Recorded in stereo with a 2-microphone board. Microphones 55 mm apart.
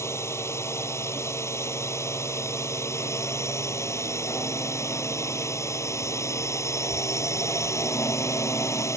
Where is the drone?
55° left (ahead or behind); by 9.0 s 65° left (ahead or behind).